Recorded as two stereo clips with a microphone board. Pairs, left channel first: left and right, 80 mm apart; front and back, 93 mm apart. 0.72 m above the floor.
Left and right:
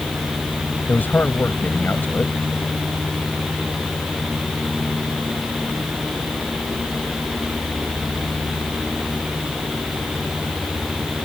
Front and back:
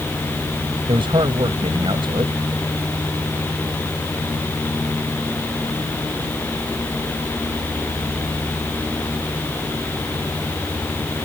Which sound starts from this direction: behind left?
A man speaking, at 0.9 s.